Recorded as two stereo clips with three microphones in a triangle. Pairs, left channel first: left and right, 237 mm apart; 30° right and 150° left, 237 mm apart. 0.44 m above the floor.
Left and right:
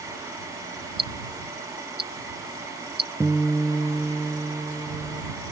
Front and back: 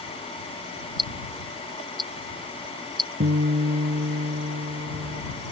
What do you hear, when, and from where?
1.0 s ticking: 135° right
3.2 s a guitar: 175° right